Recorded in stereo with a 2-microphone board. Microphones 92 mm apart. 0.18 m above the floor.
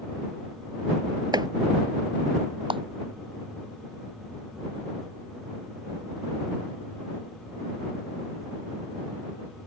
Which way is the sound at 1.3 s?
50° right (ahead or behind).